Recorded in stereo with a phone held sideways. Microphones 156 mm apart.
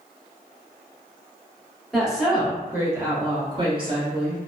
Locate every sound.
1.9 s a woman speaking: centre (ahead or behind), 1.2 m; by 4.4 s 35° right (ahead or behind), 1.0 m